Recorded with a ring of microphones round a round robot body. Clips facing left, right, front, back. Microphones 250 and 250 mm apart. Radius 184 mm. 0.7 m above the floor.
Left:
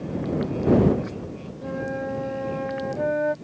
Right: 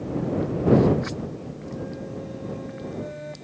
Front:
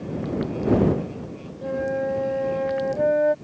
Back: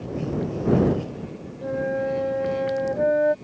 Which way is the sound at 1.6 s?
95° left.